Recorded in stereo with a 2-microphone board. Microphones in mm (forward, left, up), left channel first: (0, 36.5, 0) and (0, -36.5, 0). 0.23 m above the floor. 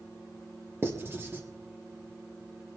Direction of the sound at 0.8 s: 35° right (ahead or behind).